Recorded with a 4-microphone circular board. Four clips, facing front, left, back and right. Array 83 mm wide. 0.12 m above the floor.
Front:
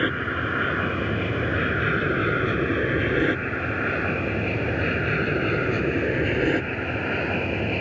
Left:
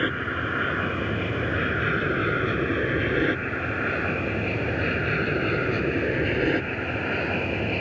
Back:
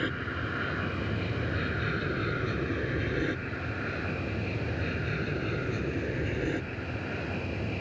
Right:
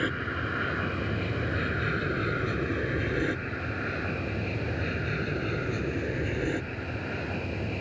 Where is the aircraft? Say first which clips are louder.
Left 4 dB, front 8 dB; 25° left; by 7.8 s 30° left.